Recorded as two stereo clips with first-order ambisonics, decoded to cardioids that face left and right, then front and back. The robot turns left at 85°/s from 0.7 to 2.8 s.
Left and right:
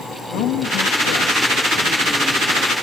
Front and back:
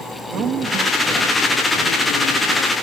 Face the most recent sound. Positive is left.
turn(degrees=-55)